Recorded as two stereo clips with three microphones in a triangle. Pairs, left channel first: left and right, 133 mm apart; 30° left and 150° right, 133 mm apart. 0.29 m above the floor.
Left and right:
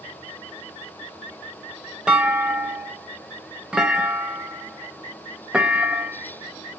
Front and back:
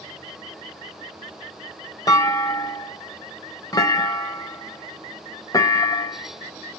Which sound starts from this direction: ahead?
A clunk, at 2.1 s.